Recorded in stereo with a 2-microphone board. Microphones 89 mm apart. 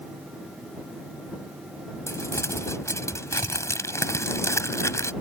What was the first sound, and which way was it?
Crumpling, 35° left (ahead or behind).